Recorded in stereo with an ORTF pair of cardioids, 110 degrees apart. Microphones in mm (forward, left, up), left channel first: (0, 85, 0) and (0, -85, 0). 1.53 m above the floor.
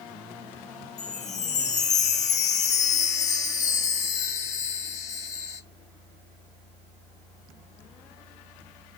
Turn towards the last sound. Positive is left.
turn(degrees=45)